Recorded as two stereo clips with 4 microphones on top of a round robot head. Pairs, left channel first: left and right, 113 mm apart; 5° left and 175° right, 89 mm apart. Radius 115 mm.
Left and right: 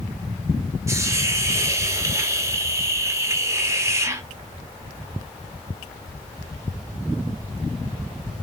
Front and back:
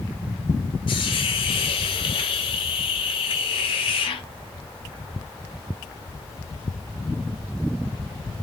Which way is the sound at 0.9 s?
25° right.